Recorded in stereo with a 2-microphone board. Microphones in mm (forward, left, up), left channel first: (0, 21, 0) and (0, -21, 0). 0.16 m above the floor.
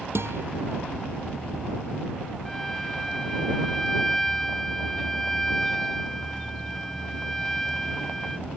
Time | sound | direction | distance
0.1 | a guitar | 75° right (ahead or behind) | ?
2.5 | a violin | 5° left (ahead or behind) | ?